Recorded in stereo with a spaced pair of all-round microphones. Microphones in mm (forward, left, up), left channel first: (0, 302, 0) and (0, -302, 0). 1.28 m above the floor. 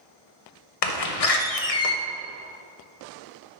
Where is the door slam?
70° left (ahead or behind), 0.6 m.